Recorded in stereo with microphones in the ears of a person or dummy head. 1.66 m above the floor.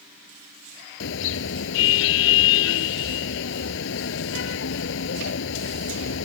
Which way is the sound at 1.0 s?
70° left (ahead or behind).